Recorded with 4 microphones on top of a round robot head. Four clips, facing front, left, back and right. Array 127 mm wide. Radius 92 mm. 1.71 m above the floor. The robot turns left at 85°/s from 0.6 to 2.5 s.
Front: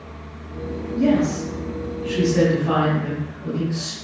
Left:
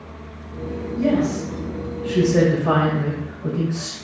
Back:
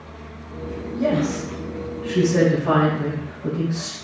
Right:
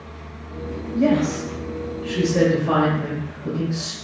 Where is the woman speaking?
115° right, 6.5 m; by 4.0 s 115° left, 6.5 m.